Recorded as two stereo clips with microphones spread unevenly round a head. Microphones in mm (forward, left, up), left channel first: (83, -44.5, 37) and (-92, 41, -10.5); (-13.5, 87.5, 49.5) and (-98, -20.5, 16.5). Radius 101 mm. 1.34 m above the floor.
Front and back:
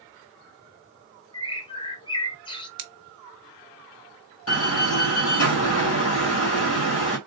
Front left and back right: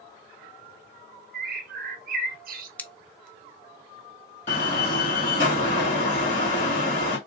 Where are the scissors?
125° left, 1.0 m.